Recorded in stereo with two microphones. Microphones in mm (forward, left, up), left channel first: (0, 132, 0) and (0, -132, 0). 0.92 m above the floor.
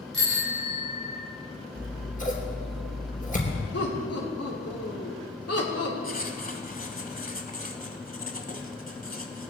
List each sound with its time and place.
0.1 s a bicycle bell: 50° right (ahead or behind), 3.5 m
1.8 s scissors: 30° left (ahead or behind), 3.5 m
3.7 s laughter: 60° left (ahead or behind), 3 m
6.0 s writing: 30° left (ahead or behind), 1.3 m